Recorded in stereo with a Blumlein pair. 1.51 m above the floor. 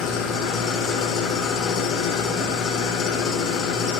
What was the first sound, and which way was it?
An engine running, 25° left.